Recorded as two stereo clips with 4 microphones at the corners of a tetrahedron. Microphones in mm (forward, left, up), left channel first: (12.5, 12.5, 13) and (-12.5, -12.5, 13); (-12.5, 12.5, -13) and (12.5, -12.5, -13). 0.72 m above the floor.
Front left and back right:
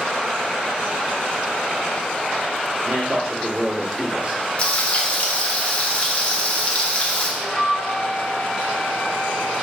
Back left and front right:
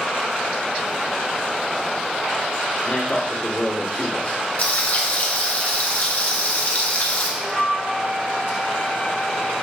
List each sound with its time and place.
2.8 s a man speaking: 175° right, 1.5 m
4.6 s frying: 100° left, 0.8 m
7.4 s a flute: 15° right, 1.2 m